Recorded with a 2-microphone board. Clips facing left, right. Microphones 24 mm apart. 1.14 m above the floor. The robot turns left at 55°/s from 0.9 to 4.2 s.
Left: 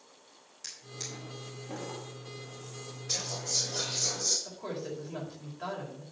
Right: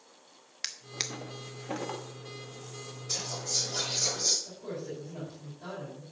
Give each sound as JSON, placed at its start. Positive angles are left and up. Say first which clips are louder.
{"t": 0.6, "sound": "a drawer", "louder": "right 6 dB", "side_deg": -75, "distance_m": 1.1}
{"t": 3.1, "sound": "whispering", "louder": "even", "azimuth_deg": 30, "distance_m": 4.0}
{"t": 4.5, "sound": "a woman speaking", "louder": "left 1 dB", "side_deg": 70, "distance_m": 4.5}